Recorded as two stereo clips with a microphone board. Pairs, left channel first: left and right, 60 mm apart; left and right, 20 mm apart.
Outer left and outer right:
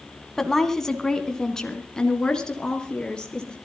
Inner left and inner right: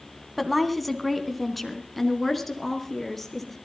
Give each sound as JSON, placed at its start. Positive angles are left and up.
{"t": 0.4, "sound": "a woman speaking", "side_deg": 5, "distance_m": 1.9}